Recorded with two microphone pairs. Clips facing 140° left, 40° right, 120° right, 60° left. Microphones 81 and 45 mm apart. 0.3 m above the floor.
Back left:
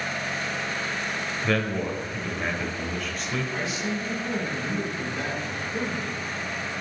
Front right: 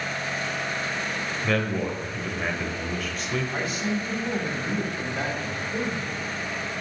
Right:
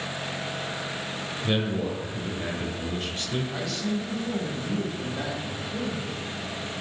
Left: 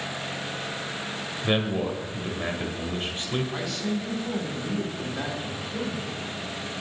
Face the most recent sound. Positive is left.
turn(degrees=-30)